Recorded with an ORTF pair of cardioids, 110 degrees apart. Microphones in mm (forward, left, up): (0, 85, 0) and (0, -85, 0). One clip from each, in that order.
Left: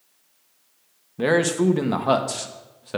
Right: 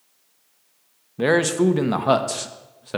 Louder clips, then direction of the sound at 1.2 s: Right 1 dB; 10° right.